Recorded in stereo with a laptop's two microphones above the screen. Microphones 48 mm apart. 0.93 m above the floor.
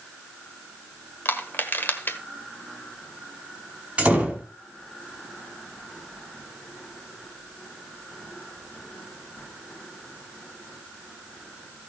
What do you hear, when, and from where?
1.2 s crushing: 50° left (ahead or behind), 1.3 m
4.0 s a door slam: 30° right (ahead or behind), 5 m